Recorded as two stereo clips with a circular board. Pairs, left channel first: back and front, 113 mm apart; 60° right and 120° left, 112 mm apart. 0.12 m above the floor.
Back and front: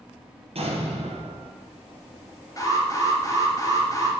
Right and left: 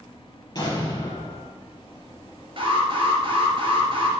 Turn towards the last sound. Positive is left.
turn(degrees=130)